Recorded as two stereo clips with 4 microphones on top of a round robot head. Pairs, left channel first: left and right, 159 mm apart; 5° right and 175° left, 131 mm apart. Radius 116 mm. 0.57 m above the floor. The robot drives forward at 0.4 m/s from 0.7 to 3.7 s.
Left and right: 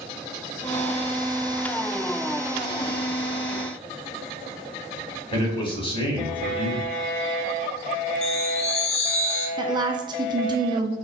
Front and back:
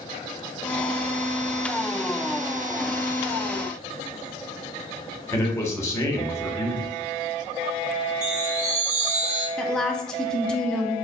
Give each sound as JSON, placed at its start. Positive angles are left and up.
{"t": 5.3, "sound": "a man speaking", "azimuth_deg": 55, "distance_m": 1.2}
{"t": 8.2, "sound": "a chime", "azimuth_deg": 140, "distance_m": 0.8}
{"t": 9.6, "sound": "a woman speaking", "azimuth_deg": -80, "distance_m": 0.6}